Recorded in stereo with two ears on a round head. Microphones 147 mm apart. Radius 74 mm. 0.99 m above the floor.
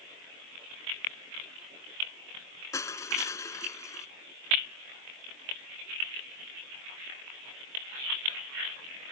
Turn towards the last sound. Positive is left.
turn(degrees=20)  # may be behind; listen again after turning